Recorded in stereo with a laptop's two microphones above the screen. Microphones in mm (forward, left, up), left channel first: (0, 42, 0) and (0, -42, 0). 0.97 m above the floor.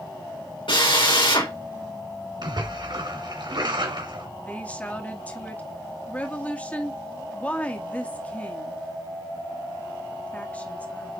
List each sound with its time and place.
0.7 s a drill: 80° left, 3.5 m
2.4 s a splash: 60° right (ahead or behind), 2.5 m
4.4 s a woman speaking: 15° left (ahead or behind), 2 m